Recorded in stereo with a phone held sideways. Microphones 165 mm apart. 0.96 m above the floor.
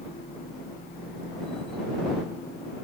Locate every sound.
0.0 s a machine running: 70° left (ahead or behind)